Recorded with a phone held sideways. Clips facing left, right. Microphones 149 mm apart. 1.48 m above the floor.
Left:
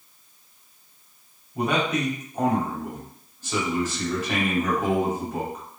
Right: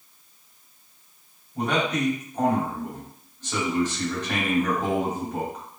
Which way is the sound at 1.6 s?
5° left (ahead or behind).